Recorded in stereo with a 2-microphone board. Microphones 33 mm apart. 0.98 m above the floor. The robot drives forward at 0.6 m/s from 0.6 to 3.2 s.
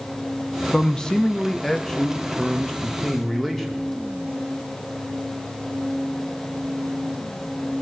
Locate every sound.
0.7 s a man speaking: 20° left (ahead or behind), 0.6 m; by 3.9 s 5° left (ahead or behind), 1.4 m